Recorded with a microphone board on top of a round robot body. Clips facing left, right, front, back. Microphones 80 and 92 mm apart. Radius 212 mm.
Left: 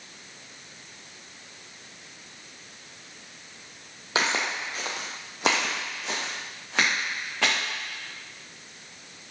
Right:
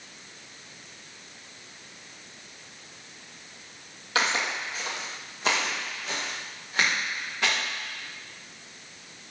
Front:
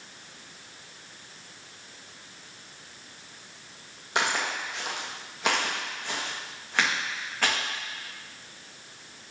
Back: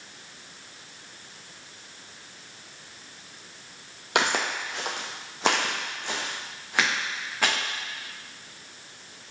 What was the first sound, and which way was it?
Footsteps, 160° left.